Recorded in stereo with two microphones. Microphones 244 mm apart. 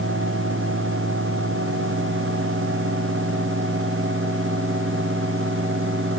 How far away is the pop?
No pop in this recording.